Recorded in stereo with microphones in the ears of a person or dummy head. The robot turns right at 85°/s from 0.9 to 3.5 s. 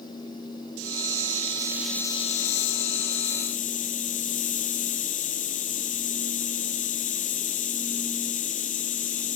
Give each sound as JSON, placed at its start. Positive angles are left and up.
{"t": 0.8, "sound": "a hiss", "azimuth_deg": -85, "distance_m": 1.4}